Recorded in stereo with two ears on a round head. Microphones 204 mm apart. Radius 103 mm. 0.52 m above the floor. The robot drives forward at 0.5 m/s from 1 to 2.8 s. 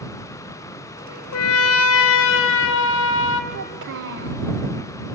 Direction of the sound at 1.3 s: 75° left (ahead or behind).